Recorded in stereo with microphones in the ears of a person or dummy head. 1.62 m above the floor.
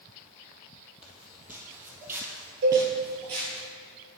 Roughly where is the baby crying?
I don't hear a baby crying.